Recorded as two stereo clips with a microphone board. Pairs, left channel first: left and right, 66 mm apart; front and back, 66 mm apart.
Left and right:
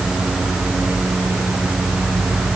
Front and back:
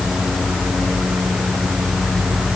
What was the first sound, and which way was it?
Only background noise.